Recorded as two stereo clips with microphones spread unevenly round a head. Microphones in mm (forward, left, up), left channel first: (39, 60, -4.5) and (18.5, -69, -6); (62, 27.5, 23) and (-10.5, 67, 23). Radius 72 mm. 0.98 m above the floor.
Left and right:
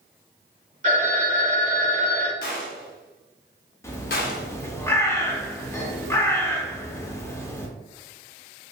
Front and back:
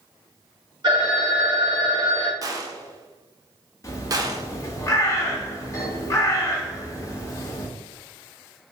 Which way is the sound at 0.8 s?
145° right.